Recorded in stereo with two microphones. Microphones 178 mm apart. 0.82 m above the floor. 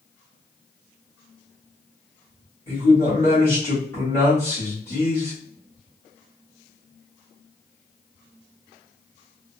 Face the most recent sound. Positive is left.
turn(degrees=15)  # may be behind; listen again after turning